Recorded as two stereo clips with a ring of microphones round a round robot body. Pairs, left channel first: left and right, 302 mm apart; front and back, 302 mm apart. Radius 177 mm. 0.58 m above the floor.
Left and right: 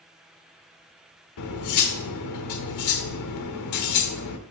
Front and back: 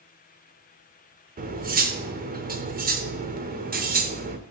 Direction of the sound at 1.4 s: 120° left.